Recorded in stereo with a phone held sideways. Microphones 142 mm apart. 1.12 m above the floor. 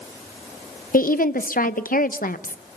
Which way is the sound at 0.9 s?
80° left.